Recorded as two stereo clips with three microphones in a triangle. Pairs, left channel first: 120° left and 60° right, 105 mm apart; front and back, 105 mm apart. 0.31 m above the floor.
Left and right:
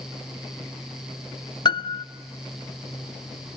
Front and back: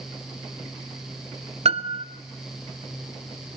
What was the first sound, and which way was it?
A piano, 165° left.